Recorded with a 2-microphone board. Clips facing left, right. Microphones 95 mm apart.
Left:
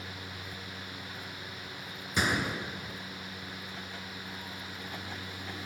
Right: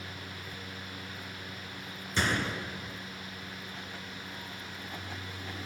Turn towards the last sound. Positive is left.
turn(degrees=10)  # may be behind; listen again after turning